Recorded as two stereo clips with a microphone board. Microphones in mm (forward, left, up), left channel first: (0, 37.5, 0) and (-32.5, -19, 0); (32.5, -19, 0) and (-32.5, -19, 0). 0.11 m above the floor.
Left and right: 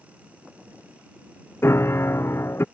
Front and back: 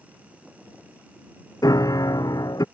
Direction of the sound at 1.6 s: 10° left.